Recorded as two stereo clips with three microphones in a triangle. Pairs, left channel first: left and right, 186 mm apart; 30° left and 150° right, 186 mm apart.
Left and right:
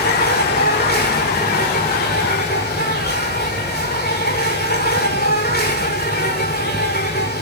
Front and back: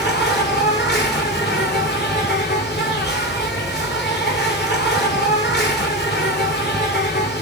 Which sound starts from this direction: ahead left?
An insect, at 0.0 s.